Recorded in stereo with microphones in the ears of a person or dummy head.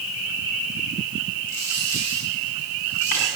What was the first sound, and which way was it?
A dropped coin, 45° left (ahead or behind).